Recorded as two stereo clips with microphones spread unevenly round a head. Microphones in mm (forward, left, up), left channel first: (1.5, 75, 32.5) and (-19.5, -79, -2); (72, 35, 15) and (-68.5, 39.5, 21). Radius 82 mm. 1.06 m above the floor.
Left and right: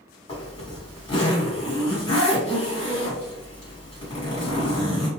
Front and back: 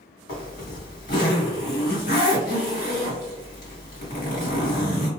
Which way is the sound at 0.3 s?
20° left.